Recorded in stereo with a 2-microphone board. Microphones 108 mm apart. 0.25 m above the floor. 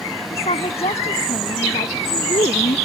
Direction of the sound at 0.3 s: 60° left (ahead or behind).